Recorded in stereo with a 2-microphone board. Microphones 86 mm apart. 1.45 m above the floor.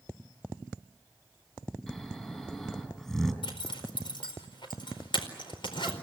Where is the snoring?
5° left (ahead or behind), 4 m.